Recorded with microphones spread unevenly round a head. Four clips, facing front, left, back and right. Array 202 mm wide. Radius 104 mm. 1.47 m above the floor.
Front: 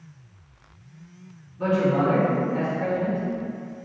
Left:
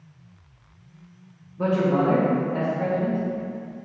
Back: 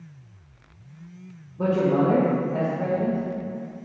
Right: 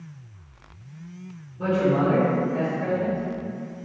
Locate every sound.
1.6 s a man speaking: 165° left, 2.5 m